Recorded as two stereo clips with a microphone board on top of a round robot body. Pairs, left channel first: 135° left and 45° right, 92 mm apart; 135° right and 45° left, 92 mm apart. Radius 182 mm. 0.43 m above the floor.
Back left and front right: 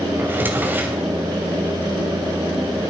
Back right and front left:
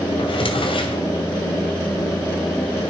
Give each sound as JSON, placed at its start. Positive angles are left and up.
{"t": 0.2, "sound": "a drawer", "azimuth_deg": -115, "distance_m": 2.0}